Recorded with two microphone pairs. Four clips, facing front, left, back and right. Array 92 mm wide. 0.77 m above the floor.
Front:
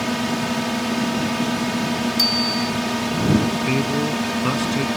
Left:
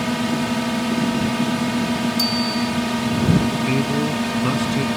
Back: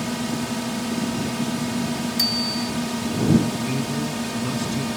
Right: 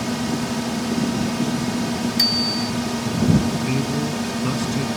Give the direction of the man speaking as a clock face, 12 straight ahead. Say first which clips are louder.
Left 3 dB, front 5 dB; 11 o'clock.